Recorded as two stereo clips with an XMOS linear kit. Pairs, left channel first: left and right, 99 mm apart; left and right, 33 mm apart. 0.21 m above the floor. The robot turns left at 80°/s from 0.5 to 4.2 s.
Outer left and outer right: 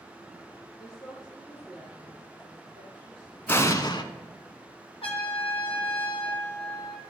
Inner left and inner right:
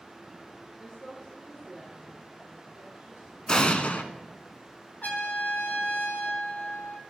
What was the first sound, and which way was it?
A woman speaking, 45° left.